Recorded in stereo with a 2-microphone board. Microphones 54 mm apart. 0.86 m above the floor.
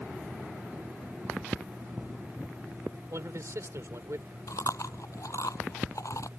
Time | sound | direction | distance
3.1 | a man speaking | 70° right (ahead or behind) | ?
4.5 | chewing | 80° left | ?